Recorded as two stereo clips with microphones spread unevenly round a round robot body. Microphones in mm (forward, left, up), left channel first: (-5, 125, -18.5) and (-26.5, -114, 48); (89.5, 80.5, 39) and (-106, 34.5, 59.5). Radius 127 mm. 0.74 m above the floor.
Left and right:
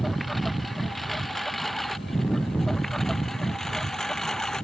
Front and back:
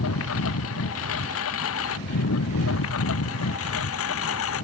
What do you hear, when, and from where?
0.0 s a lawn mower: 5° right